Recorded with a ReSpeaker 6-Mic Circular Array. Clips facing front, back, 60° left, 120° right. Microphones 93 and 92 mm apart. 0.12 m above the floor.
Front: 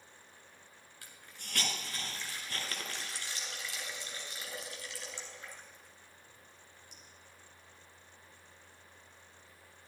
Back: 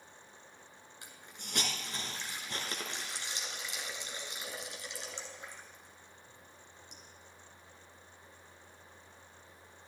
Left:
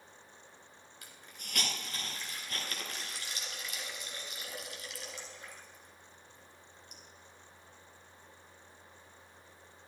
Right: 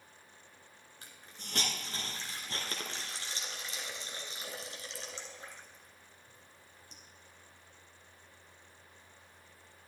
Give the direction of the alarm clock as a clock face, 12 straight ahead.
I don't hear an alarm clock.